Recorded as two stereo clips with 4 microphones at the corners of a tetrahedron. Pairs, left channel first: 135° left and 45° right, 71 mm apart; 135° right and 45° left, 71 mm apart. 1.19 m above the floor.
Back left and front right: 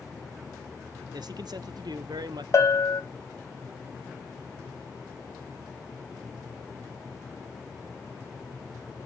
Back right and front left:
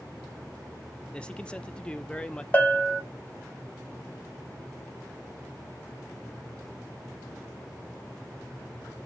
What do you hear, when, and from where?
1.1 s a man speaking: 60° right, 0.5 m
2.5 s a bell: 165° left, 0.7 m